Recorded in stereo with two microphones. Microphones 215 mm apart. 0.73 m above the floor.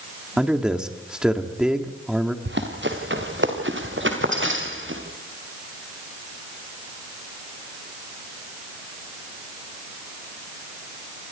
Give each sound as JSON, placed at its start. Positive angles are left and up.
{"t": 0.4, "sound": "a man speaking", "side_deg": -5, "distance_m": 1.9}
{"t": 2.5, "sound": "running footsteps", "side_deg": -60, "distance_m": 4.0}